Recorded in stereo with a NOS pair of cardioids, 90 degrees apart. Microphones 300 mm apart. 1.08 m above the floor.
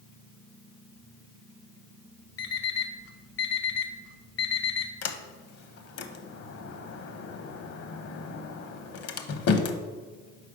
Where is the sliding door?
55° left, 0.7 m.